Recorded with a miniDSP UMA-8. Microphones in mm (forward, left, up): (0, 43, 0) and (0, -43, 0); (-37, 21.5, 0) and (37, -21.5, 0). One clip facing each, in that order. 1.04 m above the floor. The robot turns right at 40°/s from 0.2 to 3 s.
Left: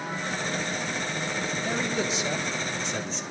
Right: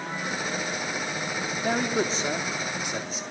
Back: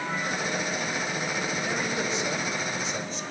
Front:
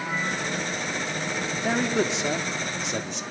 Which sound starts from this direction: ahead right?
A man speaking, at 1.6 s.